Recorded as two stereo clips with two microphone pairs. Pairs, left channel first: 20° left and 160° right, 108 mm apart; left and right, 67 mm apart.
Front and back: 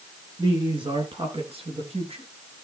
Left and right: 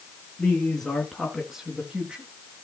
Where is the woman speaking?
160° left, 2.5 m; by 2.2 s 160° right, 3.5 m.